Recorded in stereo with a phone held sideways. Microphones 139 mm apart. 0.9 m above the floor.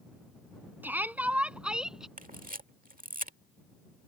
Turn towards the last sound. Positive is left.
turn(degrees=-80)